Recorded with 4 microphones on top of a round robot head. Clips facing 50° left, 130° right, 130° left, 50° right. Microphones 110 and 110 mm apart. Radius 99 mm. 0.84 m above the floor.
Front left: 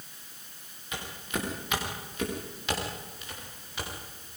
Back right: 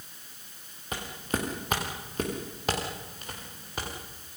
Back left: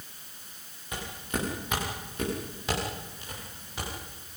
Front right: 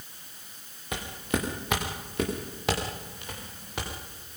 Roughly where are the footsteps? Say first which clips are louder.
Back right 3 dB, front right 4 dB; right.